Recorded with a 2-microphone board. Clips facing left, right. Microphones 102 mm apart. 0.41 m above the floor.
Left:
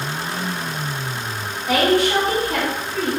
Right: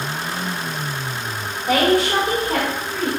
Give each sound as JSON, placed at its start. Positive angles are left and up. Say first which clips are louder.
{"t": 1.7, "sound": "a woman speaking", "louder": "even", "side_deg": -35, "distance_m": 1.7}